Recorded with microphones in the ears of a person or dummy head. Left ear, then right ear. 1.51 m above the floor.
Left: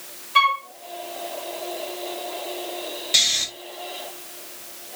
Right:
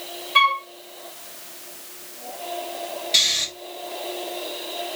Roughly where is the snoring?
Centre.